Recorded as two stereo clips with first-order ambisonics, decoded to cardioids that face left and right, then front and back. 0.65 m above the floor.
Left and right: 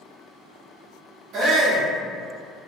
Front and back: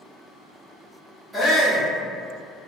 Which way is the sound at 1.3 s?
105° right.